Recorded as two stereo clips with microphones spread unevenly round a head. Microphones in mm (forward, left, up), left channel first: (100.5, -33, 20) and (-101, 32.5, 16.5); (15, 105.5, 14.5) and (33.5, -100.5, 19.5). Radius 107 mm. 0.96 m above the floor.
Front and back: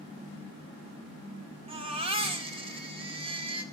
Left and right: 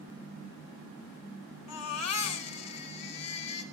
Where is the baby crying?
95° left, 2.5 m.